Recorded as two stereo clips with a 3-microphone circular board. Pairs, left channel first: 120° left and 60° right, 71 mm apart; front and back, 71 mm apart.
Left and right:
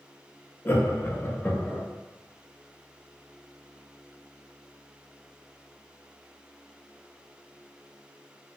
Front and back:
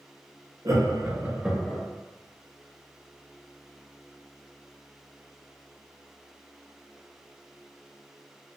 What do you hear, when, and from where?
0.7 s laughter: 170° left, 0.7 m; by 1.8 s 50° left, 0.5 m